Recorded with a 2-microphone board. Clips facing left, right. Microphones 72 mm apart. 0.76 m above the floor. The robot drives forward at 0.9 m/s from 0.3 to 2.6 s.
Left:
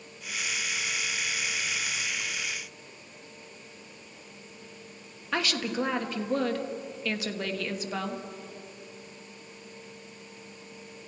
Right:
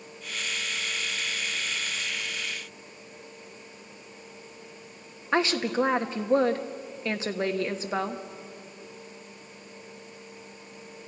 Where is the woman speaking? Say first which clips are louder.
Right 5 dB; 25° right (ahead or behind), 1.1 m.